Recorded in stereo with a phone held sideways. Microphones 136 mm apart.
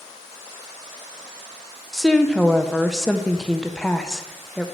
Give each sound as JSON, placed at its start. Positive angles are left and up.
{"t": 1.9, "sound": "a woman speaking", "side_deg": 5, "distance_m": 0.5}